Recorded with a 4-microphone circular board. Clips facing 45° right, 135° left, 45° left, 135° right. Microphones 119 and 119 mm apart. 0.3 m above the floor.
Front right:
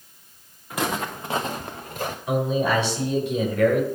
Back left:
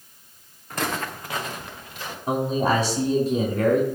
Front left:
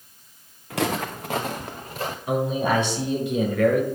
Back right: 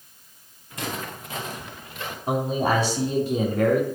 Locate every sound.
0.7 s footsteps: 40° left, 1.3 m; by 2.2 s 5° right, 1.7 m
2.3 s a man speaking: straight behind, 3 m